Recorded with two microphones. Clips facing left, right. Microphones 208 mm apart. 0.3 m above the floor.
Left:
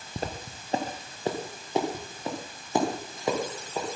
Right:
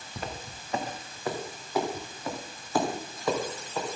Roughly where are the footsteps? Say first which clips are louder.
Left 4 dB; left.